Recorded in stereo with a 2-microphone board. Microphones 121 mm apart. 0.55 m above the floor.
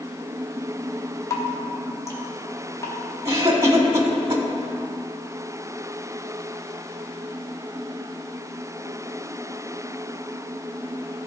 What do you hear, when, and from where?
1.3 s dripping: 25° left (ahead or behind), 1.1 m
3.2 s a cough: 25° right (ahead or behind), 1.5 m